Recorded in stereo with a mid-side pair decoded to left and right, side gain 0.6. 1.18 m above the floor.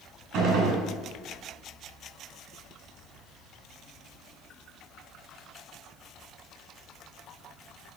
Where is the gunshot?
60° right, 5 m.